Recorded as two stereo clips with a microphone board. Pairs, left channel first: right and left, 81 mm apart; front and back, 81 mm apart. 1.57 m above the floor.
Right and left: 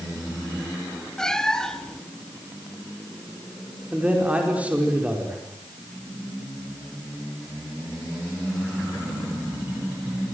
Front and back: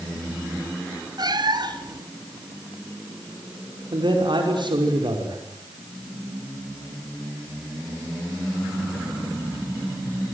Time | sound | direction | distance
1.2 | a cat meowing | 170° right | 1.8 m
3.9 | a man speaking | 165° left | 5.5 m